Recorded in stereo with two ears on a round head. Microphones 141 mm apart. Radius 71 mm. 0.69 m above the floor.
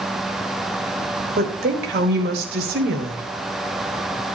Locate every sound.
1.4 s a woman speaking: 70° right (ahead or behind), 4 m